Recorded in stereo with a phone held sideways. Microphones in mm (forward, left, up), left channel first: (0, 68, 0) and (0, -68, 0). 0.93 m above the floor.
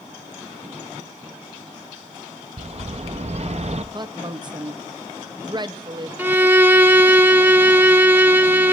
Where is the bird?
50° right (ahead or behind), 0.6 m.